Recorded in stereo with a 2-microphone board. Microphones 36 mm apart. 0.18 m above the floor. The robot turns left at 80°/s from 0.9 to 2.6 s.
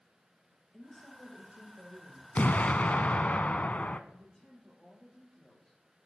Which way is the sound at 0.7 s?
10° left.